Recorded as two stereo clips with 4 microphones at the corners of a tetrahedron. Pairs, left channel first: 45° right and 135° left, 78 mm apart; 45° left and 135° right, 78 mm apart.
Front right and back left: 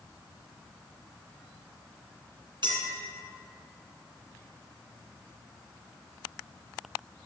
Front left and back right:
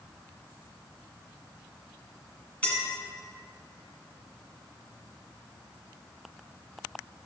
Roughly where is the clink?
Behind left.